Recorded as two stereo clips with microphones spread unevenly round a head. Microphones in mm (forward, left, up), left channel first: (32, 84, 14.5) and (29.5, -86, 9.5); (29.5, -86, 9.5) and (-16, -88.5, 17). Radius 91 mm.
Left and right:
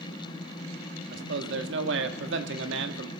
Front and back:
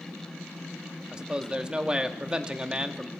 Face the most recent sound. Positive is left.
turn(degrees=-105)